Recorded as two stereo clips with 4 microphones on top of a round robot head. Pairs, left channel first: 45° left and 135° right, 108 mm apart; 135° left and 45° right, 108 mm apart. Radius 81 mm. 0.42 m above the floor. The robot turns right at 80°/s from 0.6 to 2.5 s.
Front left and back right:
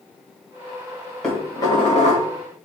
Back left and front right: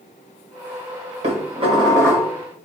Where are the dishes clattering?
40° right, 1.6 m; by 2.3 s 45° left, 1.6 m.